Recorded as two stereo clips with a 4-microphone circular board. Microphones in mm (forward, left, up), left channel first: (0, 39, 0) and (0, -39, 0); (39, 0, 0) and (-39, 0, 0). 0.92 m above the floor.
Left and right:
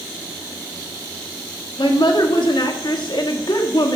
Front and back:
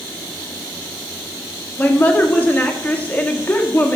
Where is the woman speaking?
70° left, 1.5 m.